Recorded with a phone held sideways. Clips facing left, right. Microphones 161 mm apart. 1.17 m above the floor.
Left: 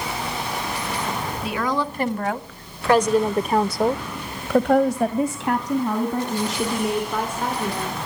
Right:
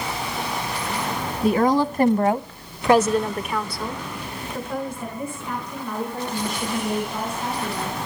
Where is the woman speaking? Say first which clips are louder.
Right 7 dB; 45° right (ahead or behind), 2.0 m; by 7.9 s 65° left (ahead or behind), 4.5 m.